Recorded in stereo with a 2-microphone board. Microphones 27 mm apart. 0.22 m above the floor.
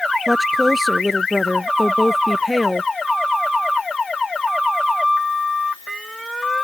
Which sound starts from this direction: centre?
A woman speaking, at 0.3 s.